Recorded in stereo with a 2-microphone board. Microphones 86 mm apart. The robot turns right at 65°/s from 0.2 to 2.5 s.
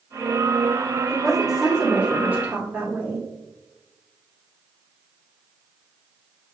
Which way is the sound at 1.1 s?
5° left (ahead or behind).